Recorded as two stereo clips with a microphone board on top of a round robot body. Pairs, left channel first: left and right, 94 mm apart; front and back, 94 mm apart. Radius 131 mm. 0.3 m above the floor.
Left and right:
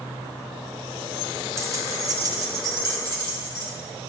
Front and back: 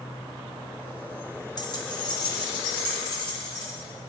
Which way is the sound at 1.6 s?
35° right.